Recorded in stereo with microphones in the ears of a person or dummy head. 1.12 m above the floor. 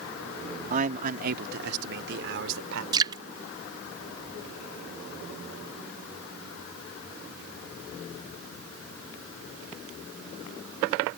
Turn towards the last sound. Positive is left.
turn(degrees=-25)  # may be behind; listen again after turning